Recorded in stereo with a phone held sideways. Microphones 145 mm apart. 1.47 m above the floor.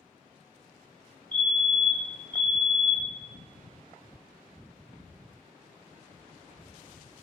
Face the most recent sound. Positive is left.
turn(degrees=60)  # may be behind; listen again after turning